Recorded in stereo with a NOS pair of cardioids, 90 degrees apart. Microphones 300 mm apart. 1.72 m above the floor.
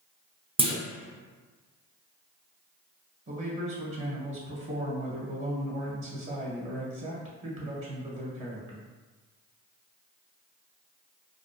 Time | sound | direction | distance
0.6 | a clunk | 20° right | 0.5 m
3.3 | a man speaking | 40° right | 1.0 m